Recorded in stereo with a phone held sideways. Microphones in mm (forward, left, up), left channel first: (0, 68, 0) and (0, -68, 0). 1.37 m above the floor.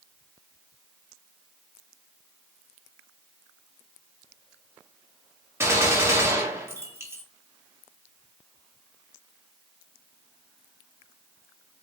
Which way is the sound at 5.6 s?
20° right (ahead or behind).